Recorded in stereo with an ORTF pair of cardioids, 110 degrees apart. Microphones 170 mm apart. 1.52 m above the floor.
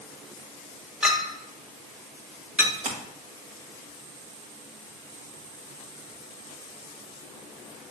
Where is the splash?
45° right, 1.4 m.